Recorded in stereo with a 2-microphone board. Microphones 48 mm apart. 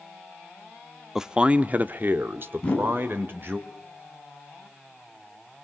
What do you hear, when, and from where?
1.1 s a man speaking: 10° right (ahead or behind), 0.9 m; by 3.6 s 50° right (ahead or behind), 2.5 m
2.6 s a whoosh: 25° left (ahead or behind), 5.5 m